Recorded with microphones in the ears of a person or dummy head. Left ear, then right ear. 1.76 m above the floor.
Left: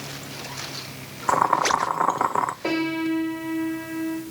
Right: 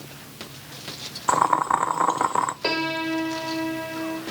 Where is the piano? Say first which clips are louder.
Even; 55° right (ahead or behind), 2.5 m.